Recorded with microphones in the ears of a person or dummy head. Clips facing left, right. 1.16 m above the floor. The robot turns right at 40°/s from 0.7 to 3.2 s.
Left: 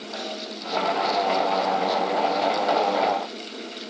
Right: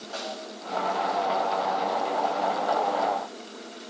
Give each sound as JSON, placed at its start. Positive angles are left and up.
{"t": 0.1, "sound": "a snare drum", "side_deg": -40, "distance_m": 8.0}